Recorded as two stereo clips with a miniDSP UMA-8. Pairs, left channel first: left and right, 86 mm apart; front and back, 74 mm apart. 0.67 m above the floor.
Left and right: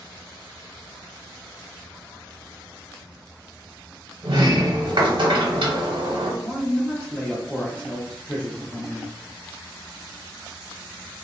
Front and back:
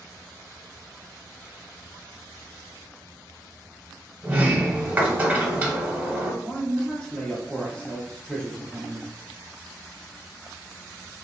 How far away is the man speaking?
About 0.7 m.